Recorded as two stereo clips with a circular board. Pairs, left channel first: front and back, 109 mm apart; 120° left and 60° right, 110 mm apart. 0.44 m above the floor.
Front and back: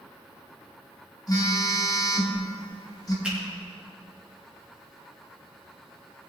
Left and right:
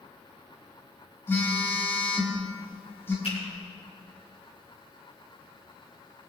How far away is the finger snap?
About 5 m.